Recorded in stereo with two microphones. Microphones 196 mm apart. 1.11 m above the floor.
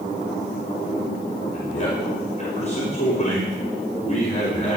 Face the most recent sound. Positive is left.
turn(degrees=40)  # may be behind; listen again after turning